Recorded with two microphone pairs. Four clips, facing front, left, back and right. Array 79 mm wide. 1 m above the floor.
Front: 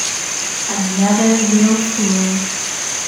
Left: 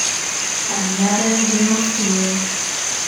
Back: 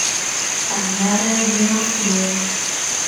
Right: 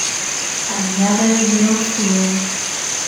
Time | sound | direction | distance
0.7 | a woman speaking | 10° right | 2.5 m